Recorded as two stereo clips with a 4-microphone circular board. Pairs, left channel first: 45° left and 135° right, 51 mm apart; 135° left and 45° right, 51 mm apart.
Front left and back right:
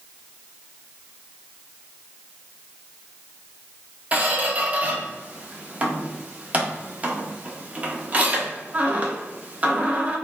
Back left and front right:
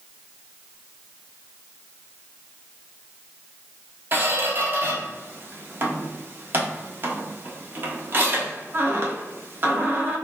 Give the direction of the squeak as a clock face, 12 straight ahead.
3 o'clock.